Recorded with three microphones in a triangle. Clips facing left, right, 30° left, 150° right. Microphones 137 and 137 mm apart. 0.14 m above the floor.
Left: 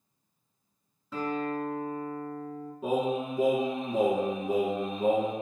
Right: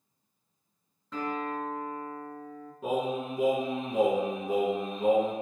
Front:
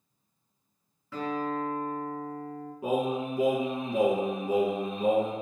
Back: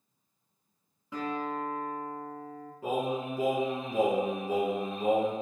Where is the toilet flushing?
I don't hear a toilet flushing.